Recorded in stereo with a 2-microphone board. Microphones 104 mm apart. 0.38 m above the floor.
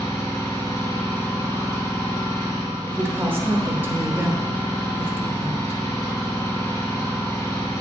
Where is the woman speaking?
20° right (ahead or behind), 0.9 m.